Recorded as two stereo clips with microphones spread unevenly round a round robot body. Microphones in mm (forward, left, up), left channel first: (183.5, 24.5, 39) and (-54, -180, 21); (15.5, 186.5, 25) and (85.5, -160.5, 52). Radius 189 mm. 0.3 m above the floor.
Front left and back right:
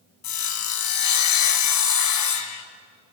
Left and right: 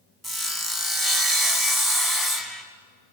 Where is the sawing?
15° left, 2.5 m.